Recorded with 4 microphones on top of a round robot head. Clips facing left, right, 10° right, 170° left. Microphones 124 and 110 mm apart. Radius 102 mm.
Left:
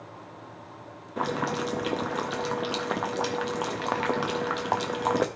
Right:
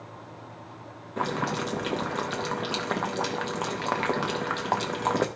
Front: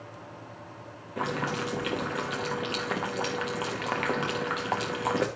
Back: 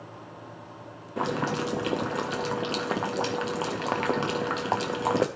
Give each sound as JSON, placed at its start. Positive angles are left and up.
{"t": 1.2, "sound": "boiling", "azimuth_deg": 170, "distance_m": 0.5}